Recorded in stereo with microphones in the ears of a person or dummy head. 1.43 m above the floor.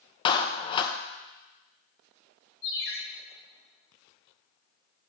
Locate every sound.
0.2 s a clap: 30° left (ahead or behind), 0.5 m
2.6 s a ringtone: 80° left, 3.5 m